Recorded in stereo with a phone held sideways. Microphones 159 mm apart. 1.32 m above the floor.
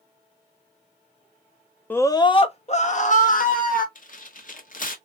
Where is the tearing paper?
60° left (ahead or behind), 0.9 m.